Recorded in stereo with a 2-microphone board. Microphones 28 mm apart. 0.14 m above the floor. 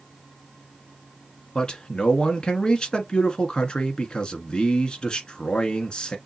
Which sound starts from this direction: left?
A man speaking, at 1.6 s.